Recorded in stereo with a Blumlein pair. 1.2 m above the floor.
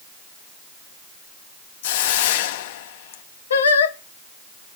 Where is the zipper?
No zipper in this recording.